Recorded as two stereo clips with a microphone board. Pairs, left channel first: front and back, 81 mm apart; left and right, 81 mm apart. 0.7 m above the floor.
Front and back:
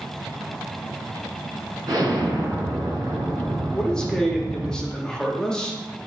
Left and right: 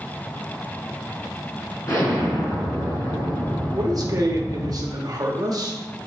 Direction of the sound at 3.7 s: 80° right.